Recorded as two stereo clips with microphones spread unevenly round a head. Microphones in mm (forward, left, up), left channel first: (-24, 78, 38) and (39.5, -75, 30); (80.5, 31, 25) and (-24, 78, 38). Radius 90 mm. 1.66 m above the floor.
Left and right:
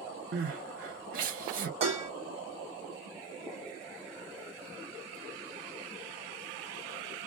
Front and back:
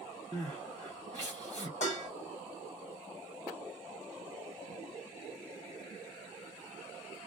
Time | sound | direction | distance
0.3 | crying | 105° right | 0.8 m
1.8 | dishes clattering | 20° right | 1.3 m